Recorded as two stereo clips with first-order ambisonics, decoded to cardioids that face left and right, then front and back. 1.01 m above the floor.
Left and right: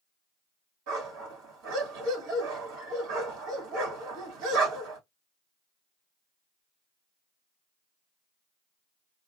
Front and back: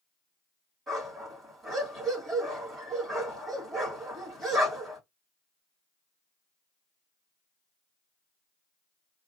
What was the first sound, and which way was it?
A dog barking, 105° right.